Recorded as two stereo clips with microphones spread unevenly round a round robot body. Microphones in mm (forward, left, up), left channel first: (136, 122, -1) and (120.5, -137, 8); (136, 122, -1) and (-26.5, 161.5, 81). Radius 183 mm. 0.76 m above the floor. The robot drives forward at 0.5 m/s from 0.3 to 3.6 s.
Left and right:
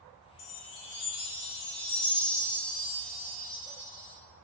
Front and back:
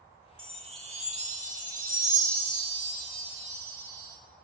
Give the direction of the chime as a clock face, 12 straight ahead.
9 o'clock.